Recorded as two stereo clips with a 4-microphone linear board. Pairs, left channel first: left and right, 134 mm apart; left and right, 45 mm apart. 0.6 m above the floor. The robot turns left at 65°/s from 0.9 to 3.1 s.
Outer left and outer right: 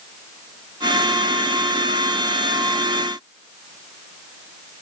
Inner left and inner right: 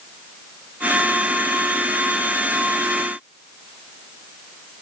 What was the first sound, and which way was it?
Only background noise.